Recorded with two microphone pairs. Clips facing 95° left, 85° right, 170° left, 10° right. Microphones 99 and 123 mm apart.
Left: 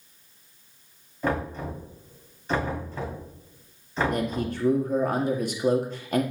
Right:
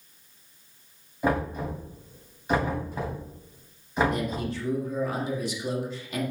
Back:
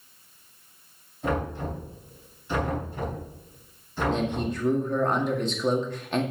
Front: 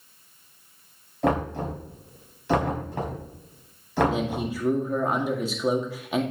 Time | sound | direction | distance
1.2 | knocking | 10° right | 4.5 m
4.1 | a man speaking | 70° left | 1.8 m